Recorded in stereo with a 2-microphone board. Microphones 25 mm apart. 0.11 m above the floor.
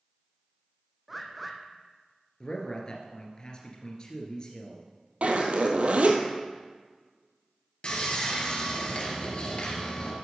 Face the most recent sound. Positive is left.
turn(degrees=45)  # may be behind; listen again after turning